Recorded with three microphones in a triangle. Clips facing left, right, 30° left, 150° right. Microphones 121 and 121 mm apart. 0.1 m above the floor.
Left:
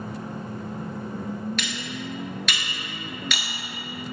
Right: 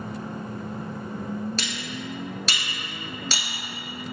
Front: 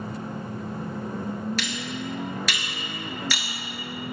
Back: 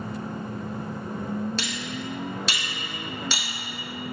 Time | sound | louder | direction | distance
1.6 | cutlery clinking | left 1 dB, front 1 dB | 115° right | 1.1 m